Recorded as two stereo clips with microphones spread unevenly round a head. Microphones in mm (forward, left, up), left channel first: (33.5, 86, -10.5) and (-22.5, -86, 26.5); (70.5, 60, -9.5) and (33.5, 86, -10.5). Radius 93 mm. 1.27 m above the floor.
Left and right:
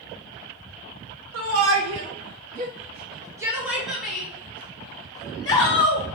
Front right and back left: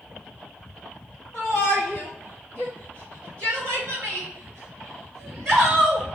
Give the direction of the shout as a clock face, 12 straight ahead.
4 o'clock.